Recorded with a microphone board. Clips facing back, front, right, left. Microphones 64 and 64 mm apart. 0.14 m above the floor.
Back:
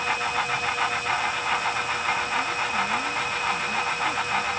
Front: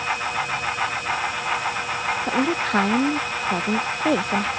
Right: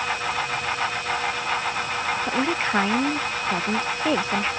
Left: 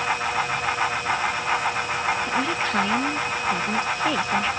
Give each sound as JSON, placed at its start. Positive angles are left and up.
{"t": 2.3, "sound": "a woman speaking", "azimuth_deg": -25}